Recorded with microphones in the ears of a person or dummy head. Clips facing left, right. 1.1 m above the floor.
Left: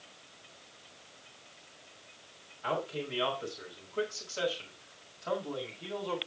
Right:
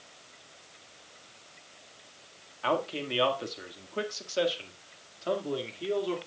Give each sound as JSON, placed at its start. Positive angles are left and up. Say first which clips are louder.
{"t": 2.6, "sound": "a man speaking", "louder": "right 4 dB", "side_deg": -85, "distance_m": 1.9}